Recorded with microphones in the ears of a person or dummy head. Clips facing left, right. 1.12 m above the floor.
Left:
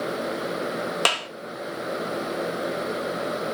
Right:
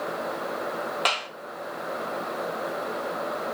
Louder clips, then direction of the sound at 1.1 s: Left 2 dB; 55° left (ahead or behind).